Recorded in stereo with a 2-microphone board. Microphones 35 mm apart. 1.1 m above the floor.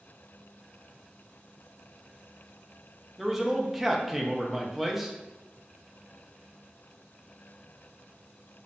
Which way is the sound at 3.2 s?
5° right (ahead or behind).